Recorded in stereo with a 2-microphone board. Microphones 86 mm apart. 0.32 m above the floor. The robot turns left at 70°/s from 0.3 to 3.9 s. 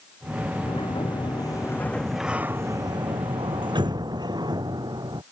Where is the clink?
I don't hear a clink.